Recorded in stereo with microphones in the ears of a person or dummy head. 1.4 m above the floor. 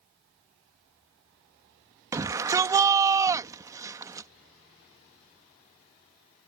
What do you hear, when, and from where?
2.1 s a shout: 15° right (ahead or behind)